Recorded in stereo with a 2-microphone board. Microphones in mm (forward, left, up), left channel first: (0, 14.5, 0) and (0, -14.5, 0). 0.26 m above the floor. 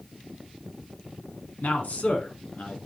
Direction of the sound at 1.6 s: 65° left (ahead or behind).